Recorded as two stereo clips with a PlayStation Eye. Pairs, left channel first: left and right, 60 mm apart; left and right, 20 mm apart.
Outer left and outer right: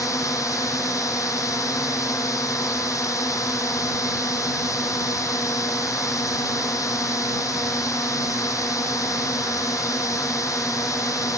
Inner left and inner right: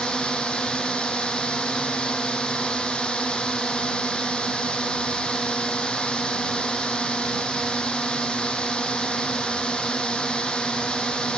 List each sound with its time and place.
0.0 s a drone: 60° left (ahead or behind)